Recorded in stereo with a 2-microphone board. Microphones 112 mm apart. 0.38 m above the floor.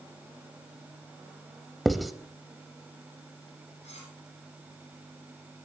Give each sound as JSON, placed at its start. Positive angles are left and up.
{"t": 1.9, "sound": "writing", "side_deg": 0, "distance_m": 0.8}
{"t": 3.8, "sound": "cutlery clinking", "side_deg": 75, "distance_m": 8.0}